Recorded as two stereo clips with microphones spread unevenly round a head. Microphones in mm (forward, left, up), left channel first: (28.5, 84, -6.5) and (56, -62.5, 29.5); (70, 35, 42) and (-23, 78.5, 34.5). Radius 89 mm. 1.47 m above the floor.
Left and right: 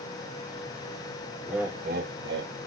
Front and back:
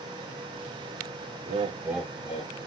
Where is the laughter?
175° right, 0.8 m; by 2.5 s 70° right, 1.0 m.